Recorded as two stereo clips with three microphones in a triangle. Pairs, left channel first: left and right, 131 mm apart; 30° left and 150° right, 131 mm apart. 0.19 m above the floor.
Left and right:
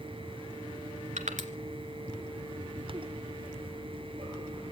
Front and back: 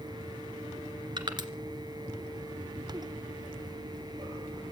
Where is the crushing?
100° right, 2 m.